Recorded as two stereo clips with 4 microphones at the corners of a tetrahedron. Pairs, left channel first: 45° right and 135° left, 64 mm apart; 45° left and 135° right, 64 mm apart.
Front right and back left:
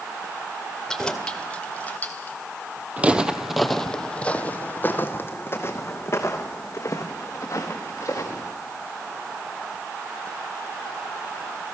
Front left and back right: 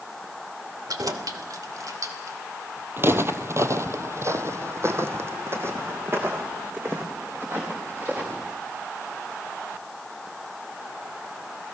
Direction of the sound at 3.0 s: 170° right.